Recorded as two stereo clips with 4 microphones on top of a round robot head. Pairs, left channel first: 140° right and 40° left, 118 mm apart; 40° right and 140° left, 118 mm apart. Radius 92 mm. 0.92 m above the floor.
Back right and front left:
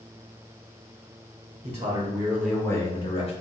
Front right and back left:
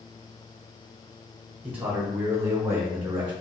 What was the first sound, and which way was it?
A man speaking, 65° left.